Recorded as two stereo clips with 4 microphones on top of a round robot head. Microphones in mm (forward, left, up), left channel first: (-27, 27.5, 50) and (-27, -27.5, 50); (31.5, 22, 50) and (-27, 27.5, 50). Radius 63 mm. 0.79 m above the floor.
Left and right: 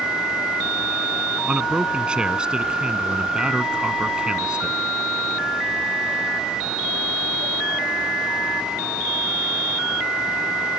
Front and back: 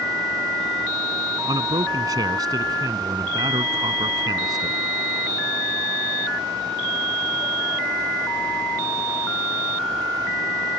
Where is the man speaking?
165° right.